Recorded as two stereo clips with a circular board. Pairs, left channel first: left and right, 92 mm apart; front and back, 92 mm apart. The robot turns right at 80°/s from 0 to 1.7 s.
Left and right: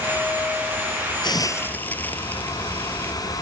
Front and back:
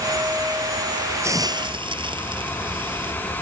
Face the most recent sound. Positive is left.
turn(degrees=160)